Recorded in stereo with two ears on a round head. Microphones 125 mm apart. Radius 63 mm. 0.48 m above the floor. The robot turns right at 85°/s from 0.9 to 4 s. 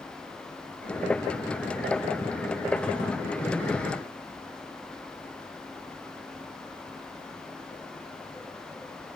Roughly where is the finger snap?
I don't hear a finger snap.